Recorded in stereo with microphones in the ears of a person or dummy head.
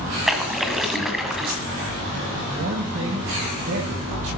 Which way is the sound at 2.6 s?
60° right (ahead or behind).